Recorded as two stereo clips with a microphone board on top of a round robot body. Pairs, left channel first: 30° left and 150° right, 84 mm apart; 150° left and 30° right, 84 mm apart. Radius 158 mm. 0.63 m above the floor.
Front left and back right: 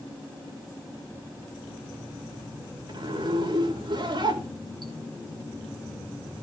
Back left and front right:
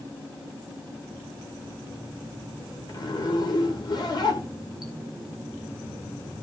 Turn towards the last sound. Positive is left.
turn(degrees=-175)